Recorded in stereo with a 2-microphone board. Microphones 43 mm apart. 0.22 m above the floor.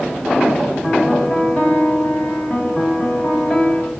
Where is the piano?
25° left (ahead or behind), 1.8 m.